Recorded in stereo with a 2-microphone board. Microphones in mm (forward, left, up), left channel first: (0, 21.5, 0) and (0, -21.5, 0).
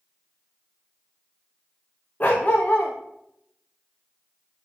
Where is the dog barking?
35° left (ahead or behind), 2.5 m.